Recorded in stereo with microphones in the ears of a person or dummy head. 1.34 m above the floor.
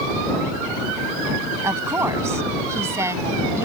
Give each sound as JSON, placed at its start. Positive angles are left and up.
{"t": 1.6, "sound": "a woman speaking", "side_deg": -20}